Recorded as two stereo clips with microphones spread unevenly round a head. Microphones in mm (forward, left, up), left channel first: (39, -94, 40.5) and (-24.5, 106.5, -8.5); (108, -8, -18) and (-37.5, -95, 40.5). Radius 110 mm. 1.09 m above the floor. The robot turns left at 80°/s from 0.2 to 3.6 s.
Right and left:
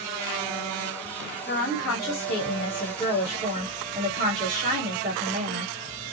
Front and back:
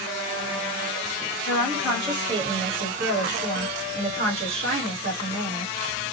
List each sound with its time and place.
1.5 s a woman speaking: 25° right, 1.3 m; by 6.0 s 165° left, 1.3 m